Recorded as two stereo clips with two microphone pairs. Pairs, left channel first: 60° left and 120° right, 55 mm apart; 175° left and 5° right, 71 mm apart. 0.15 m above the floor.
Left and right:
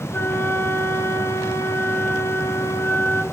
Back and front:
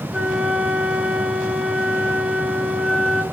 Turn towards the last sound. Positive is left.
turn(degrees=70)